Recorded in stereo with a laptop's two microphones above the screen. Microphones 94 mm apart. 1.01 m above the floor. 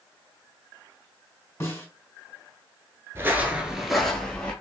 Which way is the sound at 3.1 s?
25° right (ahead or behind).